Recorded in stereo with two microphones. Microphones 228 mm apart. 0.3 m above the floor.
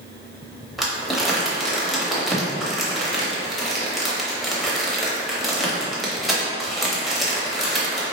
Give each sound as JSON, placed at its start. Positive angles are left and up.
{"t": 0.8, "sound": "crumpling", "side_deg": 0, "distance_m": 0.8}